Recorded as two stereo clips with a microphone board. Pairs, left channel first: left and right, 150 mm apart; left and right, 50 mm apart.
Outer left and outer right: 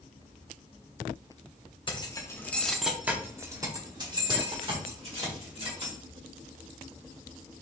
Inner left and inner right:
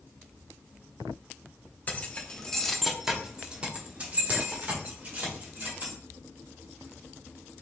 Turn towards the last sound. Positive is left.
turn(degrees=-45)  # may be behind; listen again after turning